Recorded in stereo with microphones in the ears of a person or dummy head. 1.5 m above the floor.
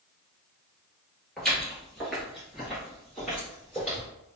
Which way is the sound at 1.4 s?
5° left (ahead or behind).